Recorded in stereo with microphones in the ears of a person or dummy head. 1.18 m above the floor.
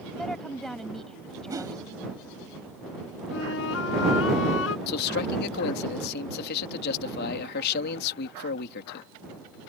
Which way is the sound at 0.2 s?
Centre (ahead or behind).